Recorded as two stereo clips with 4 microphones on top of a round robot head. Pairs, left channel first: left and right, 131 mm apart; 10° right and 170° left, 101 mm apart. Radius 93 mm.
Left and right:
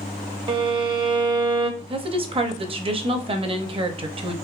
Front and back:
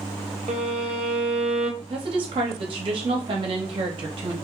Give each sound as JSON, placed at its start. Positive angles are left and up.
{"t": 0.5, "sound": "a violin", "azimuth_deg": -140, "distance_m": 0.7}
{"t": 1.8, "sound": "a woman speaking", "azimuth_deg": -140, "distance_m": 0.7}